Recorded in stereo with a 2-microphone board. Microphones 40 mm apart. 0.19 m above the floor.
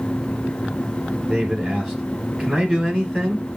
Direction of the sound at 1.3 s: 5° right (ahead or behind).